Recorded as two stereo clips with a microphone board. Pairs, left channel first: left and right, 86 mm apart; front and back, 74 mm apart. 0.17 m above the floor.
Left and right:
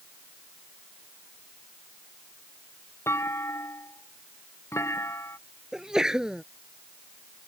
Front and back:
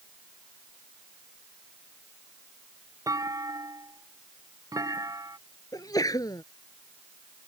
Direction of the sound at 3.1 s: 145° left.